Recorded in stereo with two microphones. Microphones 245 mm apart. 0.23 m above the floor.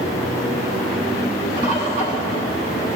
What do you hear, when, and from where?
1.6 s a bird: 30° left (ahead or behind), 1.7 m